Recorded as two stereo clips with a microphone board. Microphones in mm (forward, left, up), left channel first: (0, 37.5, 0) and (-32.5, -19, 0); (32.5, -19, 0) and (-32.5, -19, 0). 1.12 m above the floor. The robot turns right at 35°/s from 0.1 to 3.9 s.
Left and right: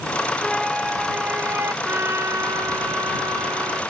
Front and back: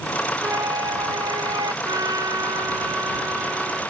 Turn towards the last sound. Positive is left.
turn(degrees=-105)